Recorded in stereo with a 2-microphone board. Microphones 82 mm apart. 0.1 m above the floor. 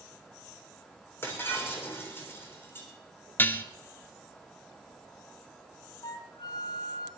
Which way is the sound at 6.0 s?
55° left (ahead or behind).